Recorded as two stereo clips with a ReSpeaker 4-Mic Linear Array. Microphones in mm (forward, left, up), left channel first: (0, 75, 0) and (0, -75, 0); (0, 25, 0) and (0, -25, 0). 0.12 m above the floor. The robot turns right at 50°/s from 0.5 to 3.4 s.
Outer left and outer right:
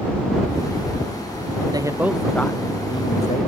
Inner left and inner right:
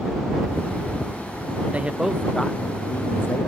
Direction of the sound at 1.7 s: 25° right.